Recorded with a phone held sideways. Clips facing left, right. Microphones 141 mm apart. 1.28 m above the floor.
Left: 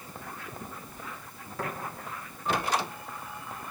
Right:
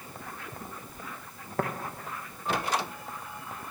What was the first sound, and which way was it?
Tapping, 55° right (ahead or behind).